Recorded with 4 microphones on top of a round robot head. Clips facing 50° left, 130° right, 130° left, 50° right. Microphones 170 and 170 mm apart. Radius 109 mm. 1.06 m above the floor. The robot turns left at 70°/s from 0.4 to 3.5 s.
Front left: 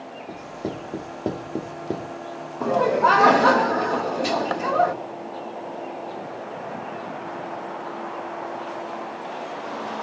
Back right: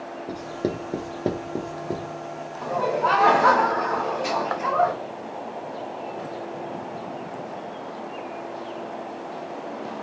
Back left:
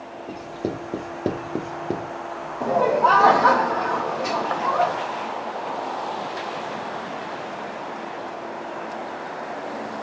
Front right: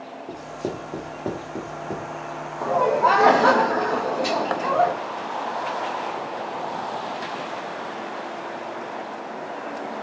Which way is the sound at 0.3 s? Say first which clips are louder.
Back right 4 dB, back left 2 dB; 145° right.